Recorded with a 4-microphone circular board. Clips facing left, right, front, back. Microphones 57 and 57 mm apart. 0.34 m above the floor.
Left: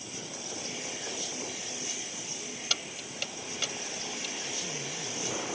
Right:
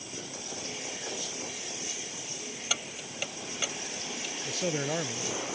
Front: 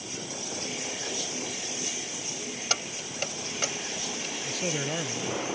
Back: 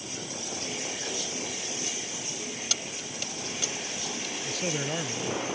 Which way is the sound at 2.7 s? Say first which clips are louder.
Right 1 dB, front 3 dB; 15° right.